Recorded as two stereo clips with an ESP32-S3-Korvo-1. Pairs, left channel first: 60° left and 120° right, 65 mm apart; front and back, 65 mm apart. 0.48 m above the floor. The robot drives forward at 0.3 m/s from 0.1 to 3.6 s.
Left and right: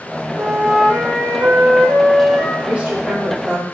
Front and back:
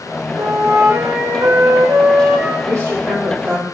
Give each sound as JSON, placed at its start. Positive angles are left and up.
{"t": 0.4, "sound": "a flute", "azimuth_deg": 180, "distance_m": 0.6}
{"t": 2.6, "sound": "a woman speaking", "azimuth_deg": 180, "distance_m": 1.5}